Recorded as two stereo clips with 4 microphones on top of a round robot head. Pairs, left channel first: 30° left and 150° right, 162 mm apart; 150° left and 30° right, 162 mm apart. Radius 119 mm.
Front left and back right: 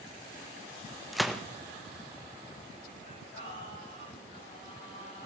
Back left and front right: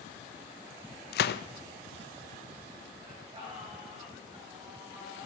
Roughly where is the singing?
Ahead left.